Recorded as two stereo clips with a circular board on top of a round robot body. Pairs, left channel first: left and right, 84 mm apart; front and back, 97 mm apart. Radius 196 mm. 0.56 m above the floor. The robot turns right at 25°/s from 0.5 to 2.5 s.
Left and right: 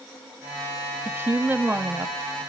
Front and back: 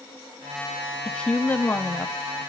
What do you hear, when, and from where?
1.1 s a woman speaking: 70° right, 0.8 m; by 2.2 s 45° right, 0.8 m